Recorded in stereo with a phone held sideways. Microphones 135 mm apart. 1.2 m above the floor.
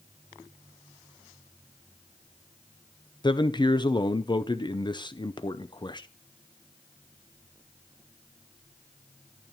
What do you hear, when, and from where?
3.2 s a man speaking: 35° left (ahead or behind), 0.6 m